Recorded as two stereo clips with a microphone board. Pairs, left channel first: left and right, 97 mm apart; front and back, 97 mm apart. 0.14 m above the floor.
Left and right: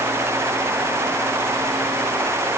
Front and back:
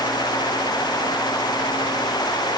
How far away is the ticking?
I don't hear ticking.